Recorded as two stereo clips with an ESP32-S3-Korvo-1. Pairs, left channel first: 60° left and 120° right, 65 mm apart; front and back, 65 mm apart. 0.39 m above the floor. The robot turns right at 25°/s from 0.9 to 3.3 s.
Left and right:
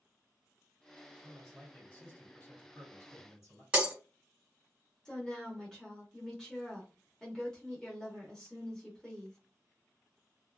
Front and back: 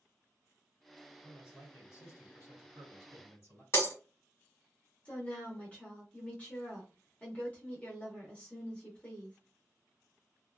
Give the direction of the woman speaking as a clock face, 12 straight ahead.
12 o'clock.